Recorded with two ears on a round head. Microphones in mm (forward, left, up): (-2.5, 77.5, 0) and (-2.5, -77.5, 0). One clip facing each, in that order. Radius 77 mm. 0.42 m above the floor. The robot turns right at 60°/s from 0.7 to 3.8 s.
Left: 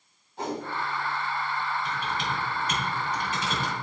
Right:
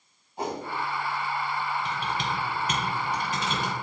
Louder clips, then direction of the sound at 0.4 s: Even; 10° right (ahead or behind).